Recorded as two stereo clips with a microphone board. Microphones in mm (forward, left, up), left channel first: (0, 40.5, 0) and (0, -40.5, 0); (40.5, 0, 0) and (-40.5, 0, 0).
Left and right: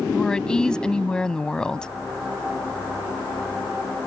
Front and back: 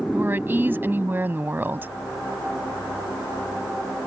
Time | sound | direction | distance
0.1 | a woman speaking | 160° left | ?